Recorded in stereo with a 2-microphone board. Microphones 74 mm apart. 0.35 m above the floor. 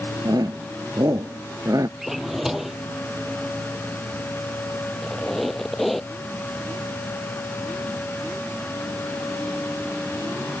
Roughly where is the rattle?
I don't hear a rattle.